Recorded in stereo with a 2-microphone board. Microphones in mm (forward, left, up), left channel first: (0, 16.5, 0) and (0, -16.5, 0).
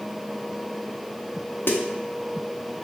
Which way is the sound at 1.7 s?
80° left.